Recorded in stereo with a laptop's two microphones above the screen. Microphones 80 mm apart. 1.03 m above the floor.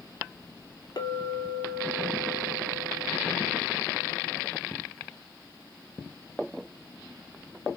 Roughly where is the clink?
Left.